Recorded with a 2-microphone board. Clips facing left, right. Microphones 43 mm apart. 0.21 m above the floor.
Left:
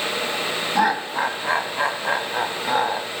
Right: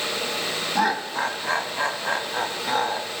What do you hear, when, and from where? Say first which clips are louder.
0.8 s laughter: left 3 dB; 15° left (ahead or behind), 1.0 m